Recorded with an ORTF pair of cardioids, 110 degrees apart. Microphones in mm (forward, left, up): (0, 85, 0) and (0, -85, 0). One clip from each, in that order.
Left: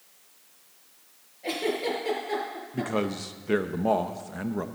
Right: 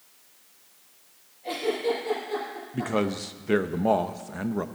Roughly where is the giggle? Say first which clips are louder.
Right 1 dB; ahead left.